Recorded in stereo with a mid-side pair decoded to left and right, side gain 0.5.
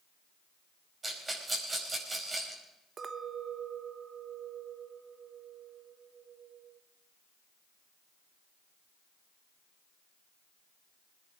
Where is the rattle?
30° right, 5 m.